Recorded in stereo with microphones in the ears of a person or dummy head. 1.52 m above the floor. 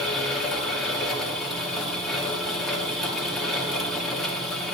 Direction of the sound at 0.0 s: Centre (ahead or behind).